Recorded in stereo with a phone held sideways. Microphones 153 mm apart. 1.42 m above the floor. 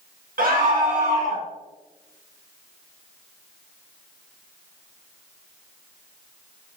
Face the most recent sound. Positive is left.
turn(degrees=-55)  # may be behind; listen again after turning